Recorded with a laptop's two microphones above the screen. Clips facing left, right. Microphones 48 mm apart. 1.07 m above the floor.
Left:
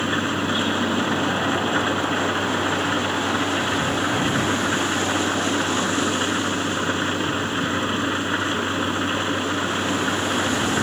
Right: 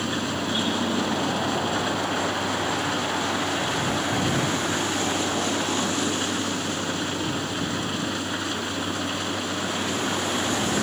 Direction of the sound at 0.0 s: 35° left (ahead or behind).